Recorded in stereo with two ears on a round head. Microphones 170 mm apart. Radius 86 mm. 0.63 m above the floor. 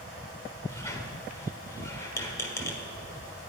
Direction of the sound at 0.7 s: 15° left (ahead or behind).